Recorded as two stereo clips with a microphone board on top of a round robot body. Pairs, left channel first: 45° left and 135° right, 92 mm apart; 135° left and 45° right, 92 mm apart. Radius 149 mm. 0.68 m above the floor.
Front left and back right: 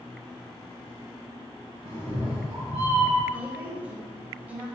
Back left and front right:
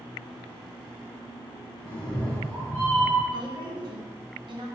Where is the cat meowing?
150° right, 0.6 m.